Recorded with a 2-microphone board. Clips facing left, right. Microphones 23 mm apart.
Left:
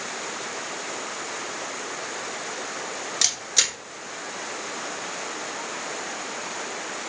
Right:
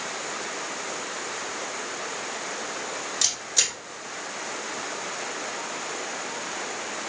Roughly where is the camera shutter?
Left.